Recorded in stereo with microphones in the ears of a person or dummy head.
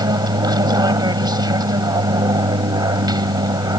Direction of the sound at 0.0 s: 25° right (ahead or behind).